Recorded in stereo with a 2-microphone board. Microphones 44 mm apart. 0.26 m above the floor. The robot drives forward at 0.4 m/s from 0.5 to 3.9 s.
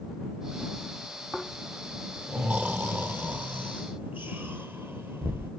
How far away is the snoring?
About 1.9 m.